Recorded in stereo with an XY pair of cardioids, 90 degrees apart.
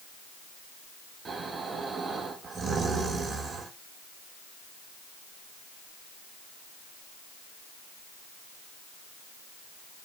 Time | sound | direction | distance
1.2 | snoring | 50° right | 3.5 m